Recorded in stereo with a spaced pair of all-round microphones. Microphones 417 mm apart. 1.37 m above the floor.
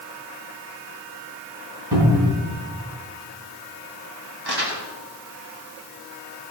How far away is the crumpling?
About 2.5 m.